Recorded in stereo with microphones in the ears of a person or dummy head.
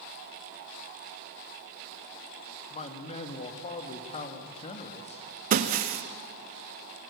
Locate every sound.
2.7 s a man speaking: 35° left (ahead or behind), 2.0 m
5.5 s breaking glass: 45° right (ahead or behind), 1.0 m